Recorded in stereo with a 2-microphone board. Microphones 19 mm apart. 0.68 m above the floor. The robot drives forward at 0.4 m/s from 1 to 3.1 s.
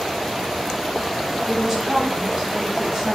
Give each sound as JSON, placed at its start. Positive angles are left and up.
{"t": 1.5, "sound": "a woman speaking", "side_deg": -30, "distance_m": 5.0}